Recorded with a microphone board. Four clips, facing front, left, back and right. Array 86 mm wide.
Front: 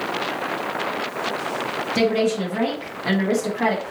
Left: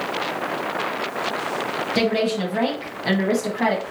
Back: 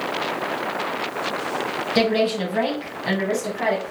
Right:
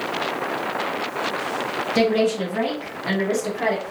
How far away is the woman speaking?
About 1.1 m.